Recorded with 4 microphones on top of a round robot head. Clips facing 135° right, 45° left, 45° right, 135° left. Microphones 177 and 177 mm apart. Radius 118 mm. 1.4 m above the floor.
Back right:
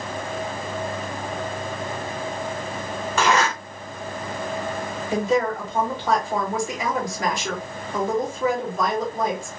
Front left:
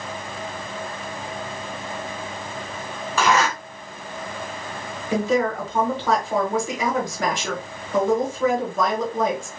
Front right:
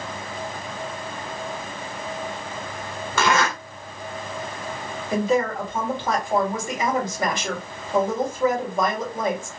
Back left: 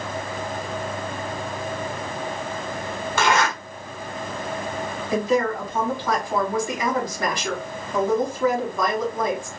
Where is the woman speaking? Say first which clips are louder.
Front left 1 dB, even; 25° left, 1.8 m.